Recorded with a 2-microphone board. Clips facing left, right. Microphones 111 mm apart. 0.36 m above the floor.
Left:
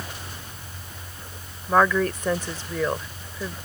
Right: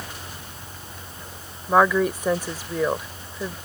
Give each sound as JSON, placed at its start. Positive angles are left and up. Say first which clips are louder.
{"t": 1.7, "sound": "a woman speaking", "louder": "right 2 dB", "side_deg": -10}